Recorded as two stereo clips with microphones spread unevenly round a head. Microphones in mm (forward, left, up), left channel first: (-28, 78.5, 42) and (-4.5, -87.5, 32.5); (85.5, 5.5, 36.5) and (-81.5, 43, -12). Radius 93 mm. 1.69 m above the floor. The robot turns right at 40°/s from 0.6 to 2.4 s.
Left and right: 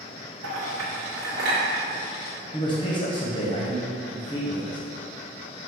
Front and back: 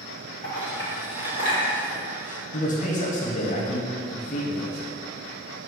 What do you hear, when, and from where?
0.4 s a clink: 75° right, 1.6 m; by 1.6 s 35° right, 1.6 m
2.5 s a man speaking: 35° left, 1.3 m